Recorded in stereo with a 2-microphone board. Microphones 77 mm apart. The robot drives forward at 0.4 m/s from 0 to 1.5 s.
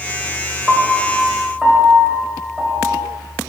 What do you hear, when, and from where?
0.7 s a piano: centre (ahead or behind), 1.0 m